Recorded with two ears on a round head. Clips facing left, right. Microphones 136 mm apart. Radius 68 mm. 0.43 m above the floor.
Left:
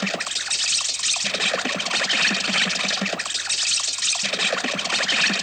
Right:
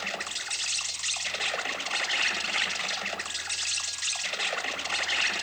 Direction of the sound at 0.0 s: 65° left (ahead or behind).